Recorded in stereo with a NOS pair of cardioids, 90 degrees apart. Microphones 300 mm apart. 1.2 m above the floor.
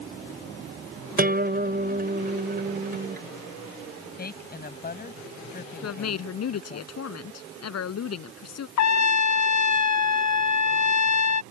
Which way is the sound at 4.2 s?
30° left.